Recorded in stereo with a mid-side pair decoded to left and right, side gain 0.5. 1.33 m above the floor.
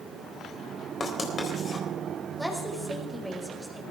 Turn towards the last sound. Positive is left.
turn(degrees=-5)